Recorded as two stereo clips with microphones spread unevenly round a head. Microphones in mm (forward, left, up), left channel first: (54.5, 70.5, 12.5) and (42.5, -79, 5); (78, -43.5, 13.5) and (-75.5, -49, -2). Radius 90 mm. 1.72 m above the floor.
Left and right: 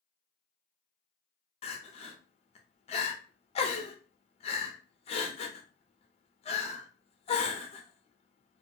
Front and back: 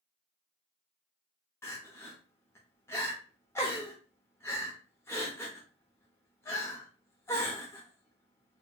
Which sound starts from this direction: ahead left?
Crying, at 1.6 s.